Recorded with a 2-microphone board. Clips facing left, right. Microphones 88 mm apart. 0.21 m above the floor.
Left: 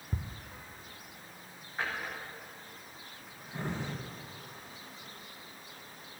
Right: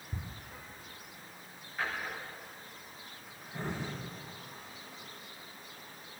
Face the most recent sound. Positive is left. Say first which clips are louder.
# even
turn(degrees=25)  # may be behind; listen again after turning